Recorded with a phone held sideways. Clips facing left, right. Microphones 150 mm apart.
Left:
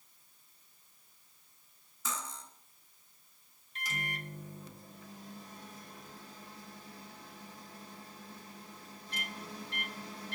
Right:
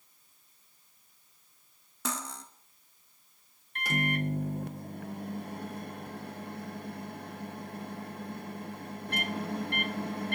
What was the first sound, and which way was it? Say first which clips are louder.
Cutlery clinking: right 5 dB; 70° right (ahead or behind).